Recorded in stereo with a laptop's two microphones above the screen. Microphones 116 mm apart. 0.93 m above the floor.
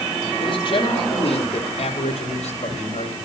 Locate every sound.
0.4 s a man speaking: 45° left (ahead or behind), 3.5 m; by 3.1 s 75° left (ahead or behind), 4 m